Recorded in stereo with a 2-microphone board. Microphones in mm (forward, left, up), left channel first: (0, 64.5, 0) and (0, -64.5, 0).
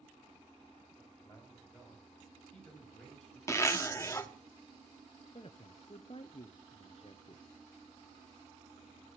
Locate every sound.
1.0 s a man speaking: 15° left (ahead or behind), 10 m; by 3.4 s 5° left (ahead or behind), 10 m
3.5 s a zipper: 20° left (ahead or behind), 0.9 m
5.3 s a man speaking: 45° left (ahead or behind), 0.8 m